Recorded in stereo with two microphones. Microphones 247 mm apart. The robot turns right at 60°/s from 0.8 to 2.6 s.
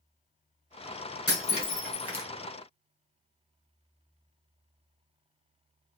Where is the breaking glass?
40° left (ahead or behind), 2.5 m; by 2.3 s 20° right (ahead or behind), 2.5 m.